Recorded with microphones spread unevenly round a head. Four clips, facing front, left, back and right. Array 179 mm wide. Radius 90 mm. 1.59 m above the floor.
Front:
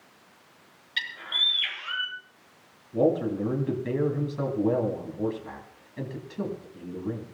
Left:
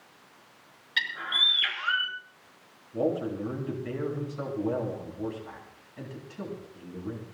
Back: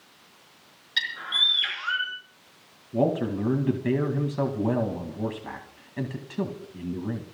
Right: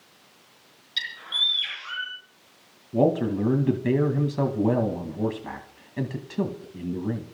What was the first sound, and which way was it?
A bird, 120° left.